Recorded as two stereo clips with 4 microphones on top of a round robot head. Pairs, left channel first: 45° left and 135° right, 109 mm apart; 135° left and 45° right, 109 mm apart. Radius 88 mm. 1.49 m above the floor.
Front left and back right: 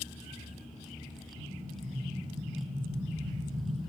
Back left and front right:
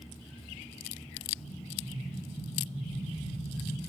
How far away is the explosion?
About 3 m.